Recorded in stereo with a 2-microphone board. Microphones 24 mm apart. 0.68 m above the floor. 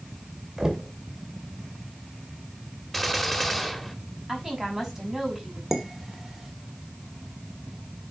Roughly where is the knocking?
Centre.